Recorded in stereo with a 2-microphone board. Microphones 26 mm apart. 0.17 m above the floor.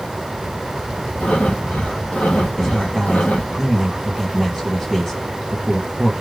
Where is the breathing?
85° left, 1.0 m.